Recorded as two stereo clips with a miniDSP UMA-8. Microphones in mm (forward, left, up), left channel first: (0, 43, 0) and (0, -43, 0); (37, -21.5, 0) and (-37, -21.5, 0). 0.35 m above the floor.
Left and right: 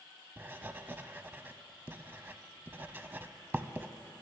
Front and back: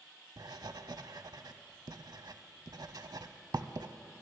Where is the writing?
155° right, 0.5 m.